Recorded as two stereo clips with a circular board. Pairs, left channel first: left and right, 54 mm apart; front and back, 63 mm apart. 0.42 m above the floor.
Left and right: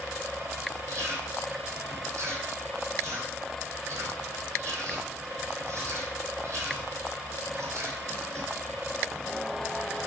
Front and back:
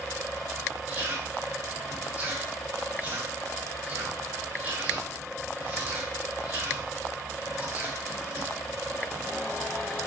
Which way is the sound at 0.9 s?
120° right.